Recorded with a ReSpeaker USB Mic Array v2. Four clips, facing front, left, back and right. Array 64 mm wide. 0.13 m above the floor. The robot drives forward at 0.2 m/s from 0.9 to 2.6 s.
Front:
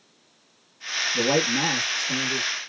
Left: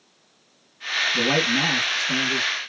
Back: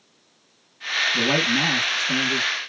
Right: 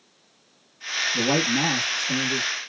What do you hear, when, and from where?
1.1 s a man speaking: 140° left, 1.1 m; by 2.5 s 160° left, 1.2 m